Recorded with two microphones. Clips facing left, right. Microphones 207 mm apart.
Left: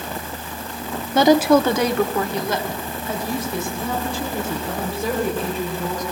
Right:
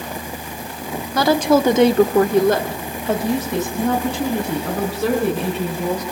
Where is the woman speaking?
25° left (ahead or behind), 1.1 m; by 6.0 s 75° right (ahead or behind), 6.5 m.